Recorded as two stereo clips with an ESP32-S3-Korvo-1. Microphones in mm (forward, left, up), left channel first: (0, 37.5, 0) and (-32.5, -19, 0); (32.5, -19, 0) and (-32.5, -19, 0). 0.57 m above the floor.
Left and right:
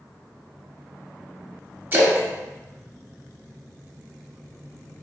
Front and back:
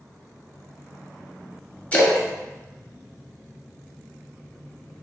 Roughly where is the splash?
Ahead right.